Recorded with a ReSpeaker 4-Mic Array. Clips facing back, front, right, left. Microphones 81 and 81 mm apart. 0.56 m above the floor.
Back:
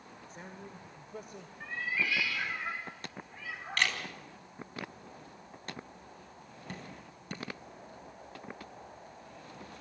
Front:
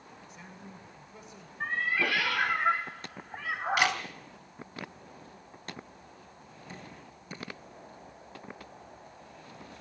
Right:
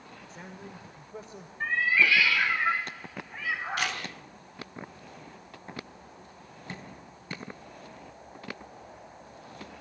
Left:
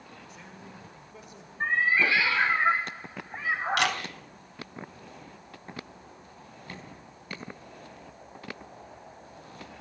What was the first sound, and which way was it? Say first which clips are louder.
A man speaking: back 3 dB, right 6 dB; 135° right.